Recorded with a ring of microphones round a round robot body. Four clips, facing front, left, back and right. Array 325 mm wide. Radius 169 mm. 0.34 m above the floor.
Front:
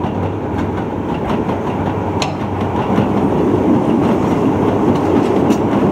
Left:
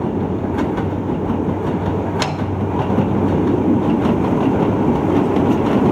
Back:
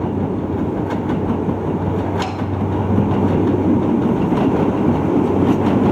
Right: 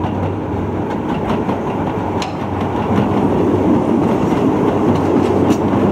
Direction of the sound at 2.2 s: 25° left.